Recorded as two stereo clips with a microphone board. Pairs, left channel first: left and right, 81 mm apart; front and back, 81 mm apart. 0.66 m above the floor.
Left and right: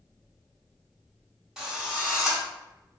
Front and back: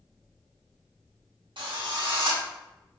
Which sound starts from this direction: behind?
A drill, at 1.6 s.